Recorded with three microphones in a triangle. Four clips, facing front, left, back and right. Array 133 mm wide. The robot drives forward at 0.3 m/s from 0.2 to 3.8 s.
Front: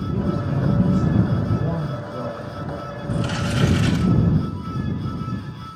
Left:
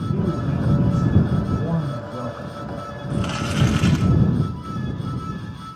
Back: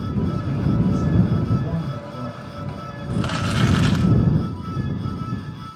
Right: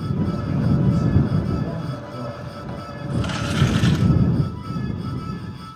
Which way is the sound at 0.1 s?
65° left.